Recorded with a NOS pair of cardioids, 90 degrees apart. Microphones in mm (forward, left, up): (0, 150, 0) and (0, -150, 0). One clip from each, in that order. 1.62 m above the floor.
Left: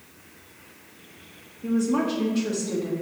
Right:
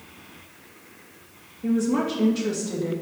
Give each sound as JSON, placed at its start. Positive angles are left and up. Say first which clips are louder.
{"t": 1.6, "sound": "a woman speaking", "louder": "right 1 dB", "azimuth_deg": -15, "distance_m": 2.0}